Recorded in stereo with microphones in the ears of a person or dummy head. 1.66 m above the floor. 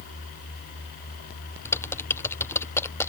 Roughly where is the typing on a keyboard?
Centre.